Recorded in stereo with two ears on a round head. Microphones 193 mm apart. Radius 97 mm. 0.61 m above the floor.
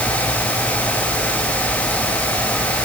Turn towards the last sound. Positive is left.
No sound to turn to.